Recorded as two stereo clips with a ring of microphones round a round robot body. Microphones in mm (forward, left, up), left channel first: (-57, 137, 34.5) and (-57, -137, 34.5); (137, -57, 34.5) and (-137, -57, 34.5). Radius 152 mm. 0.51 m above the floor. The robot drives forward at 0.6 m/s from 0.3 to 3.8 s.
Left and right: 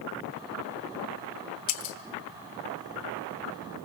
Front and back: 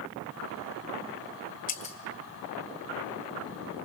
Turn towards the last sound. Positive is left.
turn(degrees=115)